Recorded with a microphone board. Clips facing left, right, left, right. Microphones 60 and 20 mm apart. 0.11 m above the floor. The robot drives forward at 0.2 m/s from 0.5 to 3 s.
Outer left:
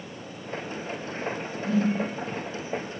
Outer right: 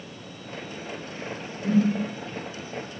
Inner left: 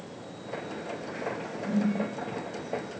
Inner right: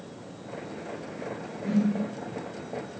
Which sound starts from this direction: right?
A whoosh, at 1.6 s.